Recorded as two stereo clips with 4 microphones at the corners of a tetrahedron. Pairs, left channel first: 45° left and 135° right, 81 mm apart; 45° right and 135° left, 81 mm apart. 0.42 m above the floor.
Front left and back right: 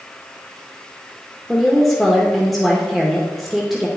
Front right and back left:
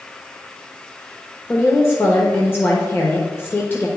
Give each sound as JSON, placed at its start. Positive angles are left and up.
{"t": 1.5, "sound": "a woman speaking", "azimuth_deg": -50, "distance_m": 1.0}